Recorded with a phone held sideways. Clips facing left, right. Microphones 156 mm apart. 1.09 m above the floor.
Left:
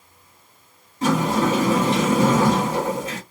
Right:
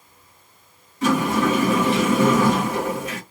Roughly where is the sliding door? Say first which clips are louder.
Even; left.